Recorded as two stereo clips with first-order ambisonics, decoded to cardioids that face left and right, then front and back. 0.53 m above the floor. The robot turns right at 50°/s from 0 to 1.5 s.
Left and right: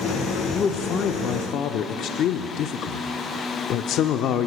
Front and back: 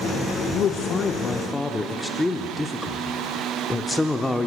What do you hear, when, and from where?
0.5 s a man speaking: 30° left, 0.8 m; by 4.5 s 80° left, 0.8 m